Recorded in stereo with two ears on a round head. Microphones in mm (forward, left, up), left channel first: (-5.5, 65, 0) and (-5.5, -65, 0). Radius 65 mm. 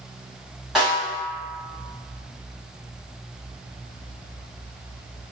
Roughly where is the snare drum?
Centre.